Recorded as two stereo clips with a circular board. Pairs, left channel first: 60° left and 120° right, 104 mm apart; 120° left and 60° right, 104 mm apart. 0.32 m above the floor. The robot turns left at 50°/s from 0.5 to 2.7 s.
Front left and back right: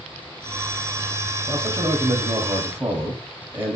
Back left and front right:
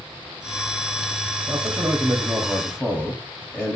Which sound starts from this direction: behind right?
A man speaking, at 1.5 s.